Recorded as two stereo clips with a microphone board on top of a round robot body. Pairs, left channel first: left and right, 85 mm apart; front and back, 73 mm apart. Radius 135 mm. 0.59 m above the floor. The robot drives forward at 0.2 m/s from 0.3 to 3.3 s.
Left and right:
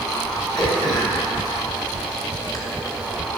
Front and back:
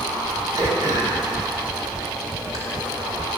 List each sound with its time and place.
0.6 s throat clearing: 130° left, 2 m; by 2.6 s 135° left, 2.5 m